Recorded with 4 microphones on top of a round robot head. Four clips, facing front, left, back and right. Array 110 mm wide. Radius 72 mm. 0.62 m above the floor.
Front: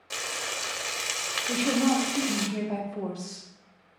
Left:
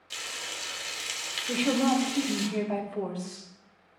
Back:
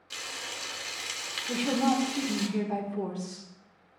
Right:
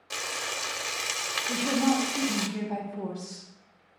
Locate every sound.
0.1 s frying: 45° right, 0.7 m
1.5 s a woman speaking: 60° left, 3 m